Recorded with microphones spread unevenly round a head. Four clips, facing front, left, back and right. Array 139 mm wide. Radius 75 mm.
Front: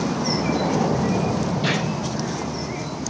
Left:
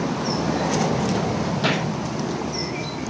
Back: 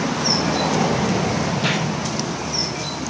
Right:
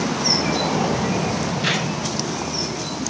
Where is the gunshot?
90° left, 8 m.